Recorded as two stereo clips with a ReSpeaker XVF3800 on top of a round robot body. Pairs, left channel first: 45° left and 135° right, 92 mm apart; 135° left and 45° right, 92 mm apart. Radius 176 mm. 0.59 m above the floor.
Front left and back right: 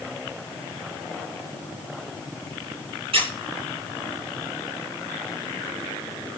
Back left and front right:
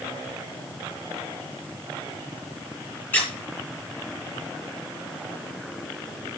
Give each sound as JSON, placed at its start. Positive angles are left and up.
{"t": 3.1, "sound": "a squeak", "azimuth_deg": -155, "distance_m": 6.5}